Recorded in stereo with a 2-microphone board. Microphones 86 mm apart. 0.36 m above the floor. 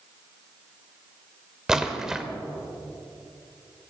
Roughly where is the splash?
Centre.